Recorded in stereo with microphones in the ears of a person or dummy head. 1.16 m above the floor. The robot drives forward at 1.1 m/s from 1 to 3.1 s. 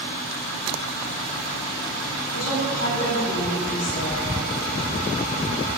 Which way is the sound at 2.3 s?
80° left.